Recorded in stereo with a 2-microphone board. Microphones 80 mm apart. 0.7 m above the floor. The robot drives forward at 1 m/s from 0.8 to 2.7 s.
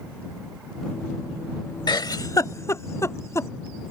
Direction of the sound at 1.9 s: 70° left (ahead or behind).